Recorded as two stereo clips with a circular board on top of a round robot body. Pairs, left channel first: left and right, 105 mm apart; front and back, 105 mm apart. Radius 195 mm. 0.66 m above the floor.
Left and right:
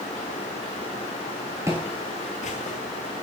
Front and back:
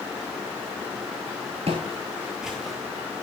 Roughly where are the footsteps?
Behind right.